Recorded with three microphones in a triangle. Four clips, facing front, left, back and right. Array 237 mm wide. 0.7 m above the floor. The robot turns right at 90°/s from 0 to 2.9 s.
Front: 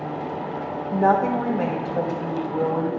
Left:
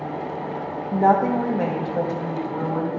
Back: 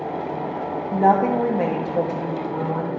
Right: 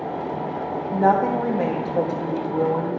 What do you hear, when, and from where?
0.9 s a woman speaking: 140° left, 0.9 m; by 3.0 s 40° right, 0.9 m